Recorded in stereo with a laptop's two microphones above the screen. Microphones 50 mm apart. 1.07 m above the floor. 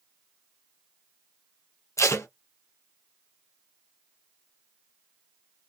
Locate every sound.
2.0 s tape being pulled: 70° left (ahead or behind), 0.5 m